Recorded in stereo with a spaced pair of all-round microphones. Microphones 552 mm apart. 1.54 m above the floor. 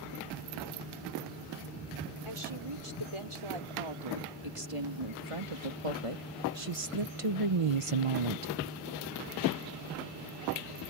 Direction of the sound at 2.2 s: 65° right (ahead or behind).